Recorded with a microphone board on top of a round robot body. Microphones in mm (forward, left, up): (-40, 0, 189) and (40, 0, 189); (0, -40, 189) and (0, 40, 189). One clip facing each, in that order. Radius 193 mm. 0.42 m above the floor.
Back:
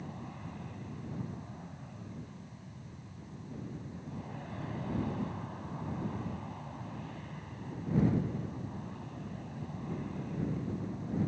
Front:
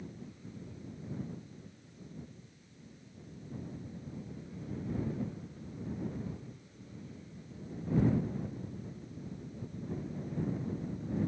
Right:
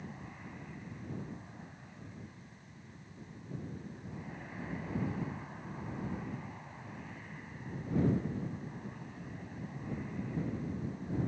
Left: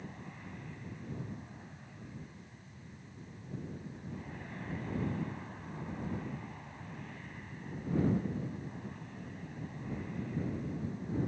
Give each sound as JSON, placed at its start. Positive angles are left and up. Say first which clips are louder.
{"t": 0.0, "sound": "an aircraft", "louder": "back 3 dB, even", "azimuth_deg": -175}